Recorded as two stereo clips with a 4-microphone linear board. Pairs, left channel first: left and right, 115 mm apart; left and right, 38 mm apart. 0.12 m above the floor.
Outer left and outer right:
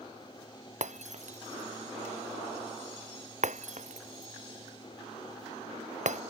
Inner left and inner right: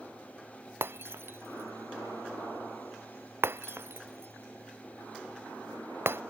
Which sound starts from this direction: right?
Breaking glass, at 0.8 s.